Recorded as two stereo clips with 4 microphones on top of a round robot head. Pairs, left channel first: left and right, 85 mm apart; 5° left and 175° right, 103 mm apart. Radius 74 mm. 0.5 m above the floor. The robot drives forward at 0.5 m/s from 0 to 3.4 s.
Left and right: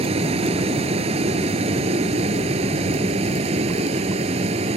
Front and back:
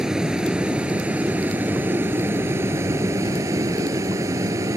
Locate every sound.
0.0 s a vehicle: 85° right; by 4.8 s 105° right